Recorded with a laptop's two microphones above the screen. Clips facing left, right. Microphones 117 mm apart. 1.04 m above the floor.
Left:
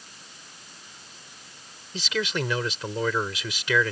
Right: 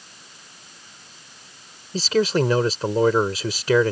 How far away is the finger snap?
I don't hear a finger snap.